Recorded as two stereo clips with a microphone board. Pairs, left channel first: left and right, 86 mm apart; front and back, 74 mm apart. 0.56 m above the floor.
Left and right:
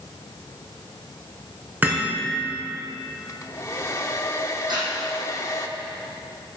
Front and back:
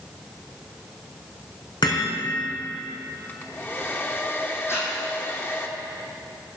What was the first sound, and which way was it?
Hammering, 20° right.